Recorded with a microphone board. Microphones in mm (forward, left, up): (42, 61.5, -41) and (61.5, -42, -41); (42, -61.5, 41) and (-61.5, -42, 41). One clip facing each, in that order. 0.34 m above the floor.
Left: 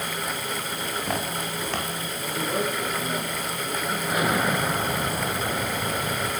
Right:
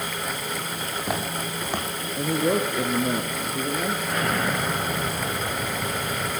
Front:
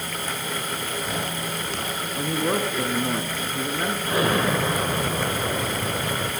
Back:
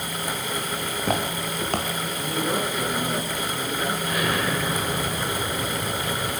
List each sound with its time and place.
0.8 s footsteps: 160° right, 5.5 m; by 1.9 s 155° right, 6.5 m
2.2 s a man speaking: 65° right, 4 m
4.0 s an explosion: 25° left, 1.7 m